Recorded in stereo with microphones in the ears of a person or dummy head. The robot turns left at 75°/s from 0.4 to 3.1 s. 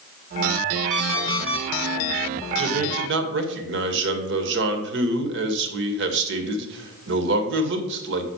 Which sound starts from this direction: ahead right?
A man speaking, at 2.6 s.